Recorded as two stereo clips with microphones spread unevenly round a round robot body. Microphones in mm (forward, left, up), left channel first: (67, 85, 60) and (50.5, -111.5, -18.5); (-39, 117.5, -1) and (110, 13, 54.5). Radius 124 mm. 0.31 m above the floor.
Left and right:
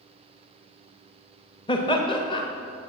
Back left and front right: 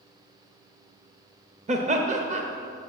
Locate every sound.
1.7 s laughter: 5° left, 1.0 m